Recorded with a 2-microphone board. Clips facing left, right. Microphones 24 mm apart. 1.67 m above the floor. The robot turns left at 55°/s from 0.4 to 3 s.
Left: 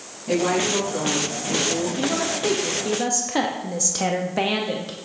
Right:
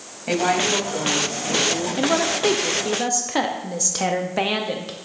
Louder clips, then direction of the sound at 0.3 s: Right 1 dB; 110° right.